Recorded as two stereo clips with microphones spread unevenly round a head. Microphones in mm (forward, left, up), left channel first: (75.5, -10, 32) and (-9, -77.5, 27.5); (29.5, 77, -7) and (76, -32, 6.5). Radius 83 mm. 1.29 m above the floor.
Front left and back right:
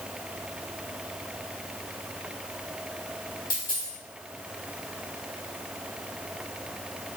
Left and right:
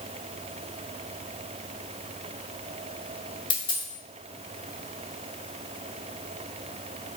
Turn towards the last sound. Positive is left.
turn(degrees=75)